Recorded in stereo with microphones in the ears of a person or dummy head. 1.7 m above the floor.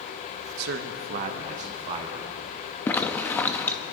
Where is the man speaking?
55° right (ahead or behind), 0.8 m; by 2.3 s 35° right (ahead or behind), 1.7 m.